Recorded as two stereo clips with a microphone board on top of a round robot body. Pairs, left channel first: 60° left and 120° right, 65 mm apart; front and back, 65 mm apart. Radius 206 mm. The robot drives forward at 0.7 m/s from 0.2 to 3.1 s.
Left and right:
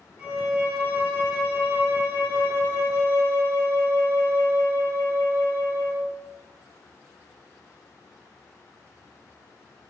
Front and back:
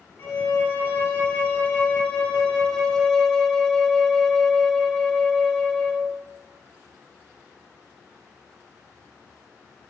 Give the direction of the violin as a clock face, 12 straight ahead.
2 o'clock.